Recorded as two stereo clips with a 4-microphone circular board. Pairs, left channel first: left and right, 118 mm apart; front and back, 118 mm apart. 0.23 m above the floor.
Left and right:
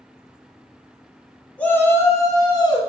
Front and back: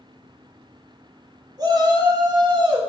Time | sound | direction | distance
1.6 | a shout | 160° left | 1.8 m